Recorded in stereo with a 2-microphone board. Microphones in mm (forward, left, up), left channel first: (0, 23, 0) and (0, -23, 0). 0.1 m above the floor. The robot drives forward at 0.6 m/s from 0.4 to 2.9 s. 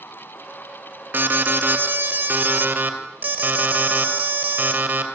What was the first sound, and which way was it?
An alarm, 45° right (ahead or behind).